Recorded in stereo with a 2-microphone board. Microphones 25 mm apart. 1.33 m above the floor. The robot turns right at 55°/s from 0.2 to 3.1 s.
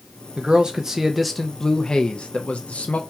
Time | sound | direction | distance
0.4 | a man speaking | 45° right | 0.6 m